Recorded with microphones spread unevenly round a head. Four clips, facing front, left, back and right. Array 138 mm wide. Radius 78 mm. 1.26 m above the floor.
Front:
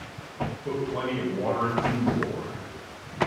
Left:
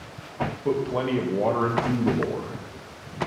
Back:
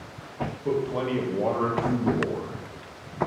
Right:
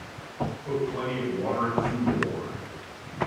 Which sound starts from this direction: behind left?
A man speaking, at 0.7 s.